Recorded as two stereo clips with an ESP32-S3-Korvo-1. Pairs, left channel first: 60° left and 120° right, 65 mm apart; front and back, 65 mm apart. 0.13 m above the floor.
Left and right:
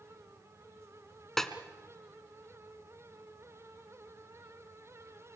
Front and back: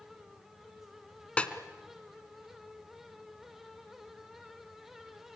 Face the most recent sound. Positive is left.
turn(degrees=-10)